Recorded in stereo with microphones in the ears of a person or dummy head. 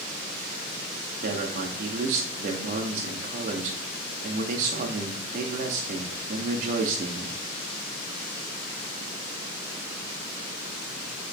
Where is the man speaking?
45° right (ahead or behind), 0.7 m.